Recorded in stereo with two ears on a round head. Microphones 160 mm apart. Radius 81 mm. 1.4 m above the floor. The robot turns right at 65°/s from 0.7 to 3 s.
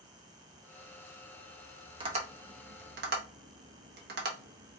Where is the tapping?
30° right (ahead or behind), 1.0 m; by 4.8 s 60° right (ahead or behind), 1.0 m.